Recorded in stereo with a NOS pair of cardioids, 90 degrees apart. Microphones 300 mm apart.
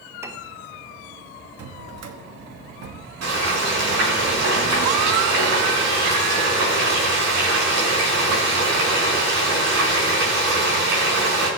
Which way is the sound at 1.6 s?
60° right.